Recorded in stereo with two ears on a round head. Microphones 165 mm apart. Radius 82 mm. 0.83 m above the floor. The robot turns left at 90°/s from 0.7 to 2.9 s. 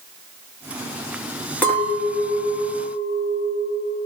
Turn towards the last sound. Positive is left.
turn(degrees=55)